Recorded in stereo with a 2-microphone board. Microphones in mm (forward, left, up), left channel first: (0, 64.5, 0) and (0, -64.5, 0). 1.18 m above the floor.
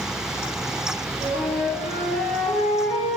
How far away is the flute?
About 1.9 m.